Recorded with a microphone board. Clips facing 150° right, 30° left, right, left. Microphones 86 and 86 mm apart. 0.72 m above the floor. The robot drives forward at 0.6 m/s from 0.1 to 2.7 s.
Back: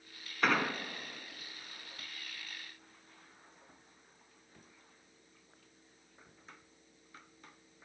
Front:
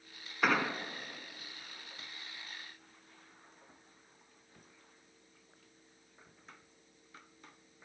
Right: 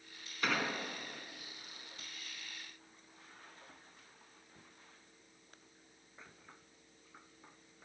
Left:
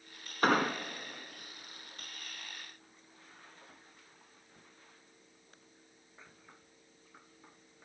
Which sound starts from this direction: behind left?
An explosion, at 0.4 s.